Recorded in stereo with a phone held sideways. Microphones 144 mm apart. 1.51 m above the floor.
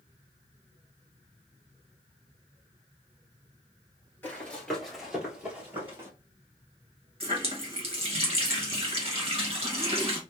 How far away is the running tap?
About 1.1 m.